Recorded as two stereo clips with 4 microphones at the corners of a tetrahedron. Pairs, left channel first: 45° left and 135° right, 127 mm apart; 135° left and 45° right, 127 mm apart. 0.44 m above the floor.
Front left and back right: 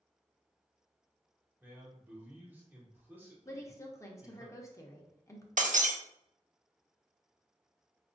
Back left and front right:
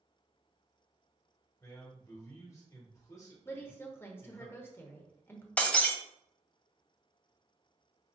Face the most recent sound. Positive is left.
turn(degrees=-145)